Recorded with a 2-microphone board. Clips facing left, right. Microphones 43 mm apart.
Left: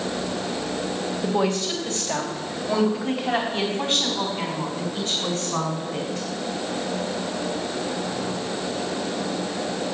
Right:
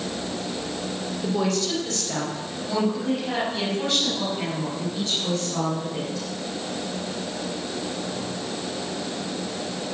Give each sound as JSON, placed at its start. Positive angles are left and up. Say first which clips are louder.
{"t": 1.2, "sound": "a woman speaking", "louder": "left 1 dB", "side_deg": 15, "distance_m": 3.0}